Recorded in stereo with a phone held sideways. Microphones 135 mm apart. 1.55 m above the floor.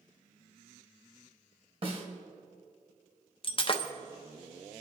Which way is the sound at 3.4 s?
40° left (ahead or behind).